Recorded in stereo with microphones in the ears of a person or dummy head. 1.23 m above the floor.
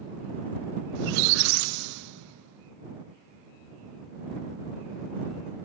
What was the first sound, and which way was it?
A squeak, 60° right (ahead or behind).